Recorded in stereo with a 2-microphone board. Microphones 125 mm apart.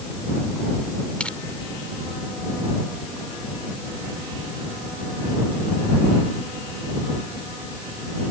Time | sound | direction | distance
1.2 | crushing | 10° left (ahead or behind) | ?